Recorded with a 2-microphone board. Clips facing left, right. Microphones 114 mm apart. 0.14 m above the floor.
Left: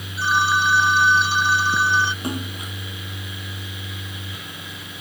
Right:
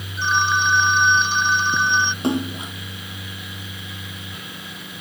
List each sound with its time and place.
0.2 s a phone ringing: 5° left (ahead or behind)
2.2 s a splash: 25° right (ahead or behind)